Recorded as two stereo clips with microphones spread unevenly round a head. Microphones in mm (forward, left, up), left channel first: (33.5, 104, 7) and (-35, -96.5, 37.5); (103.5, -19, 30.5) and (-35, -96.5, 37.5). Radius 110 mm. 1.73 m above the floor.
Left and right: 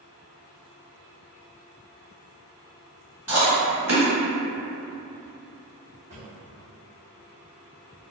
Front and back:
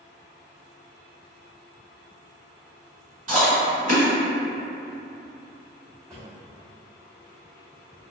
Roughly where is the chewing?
Behind.